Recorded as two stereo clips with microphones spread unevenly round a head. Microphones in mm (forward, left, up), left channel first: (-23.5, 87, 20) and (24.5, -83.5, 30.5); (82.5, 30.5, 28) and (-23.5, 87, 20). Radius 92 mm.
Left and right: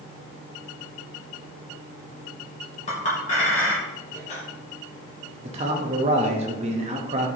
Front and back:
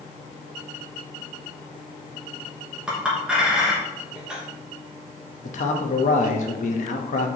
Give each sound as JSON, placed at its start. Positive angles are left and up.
{"t": 2.9, "sound": "a clink", "azimuth_deg": 70, "distance_m": 1.3}
{"t": 5.4, "sound": "a man speaking", "azimuth_deg": -20, "distance_m": 0.8}